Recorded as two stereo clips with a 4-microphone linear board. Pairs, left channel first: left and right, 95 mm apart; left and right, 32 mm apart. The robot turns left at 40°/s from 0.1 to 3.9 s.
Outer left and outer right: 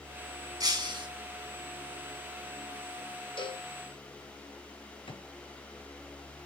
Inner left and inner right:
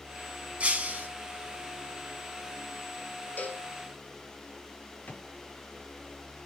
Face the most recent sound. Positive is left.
turn(degrees=65)  # may be behind; listen again after turning